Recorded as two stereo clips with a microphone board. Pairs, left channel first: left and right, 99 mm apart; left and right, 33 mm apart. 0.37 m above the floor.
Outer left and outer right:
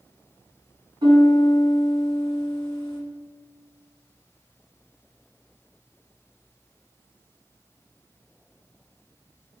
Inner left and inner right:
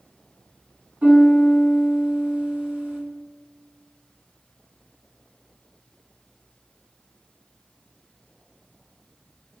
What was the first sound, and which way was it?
A piano, 45° right (ahead or behind).